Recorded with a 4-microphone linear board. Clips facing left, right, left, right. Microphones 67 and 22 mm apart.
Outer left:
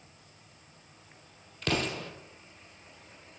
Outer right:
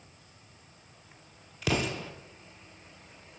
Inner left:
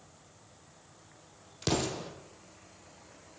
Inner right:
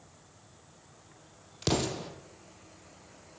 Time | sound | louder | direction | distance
1.6 | an explosion | outer right 1 dB, inner right 1 dB | 5° right (ahead or behind) | 1.9 m